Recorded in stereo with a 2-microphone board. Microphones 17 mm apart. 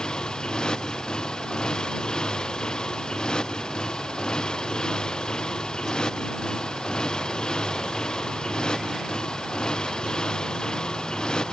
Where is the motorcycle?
55° left (ahead or behind).